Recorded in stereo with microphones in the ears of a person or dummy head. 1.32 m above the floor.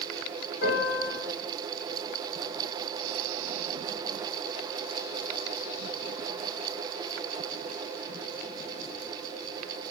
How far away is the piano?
About 1.7 m.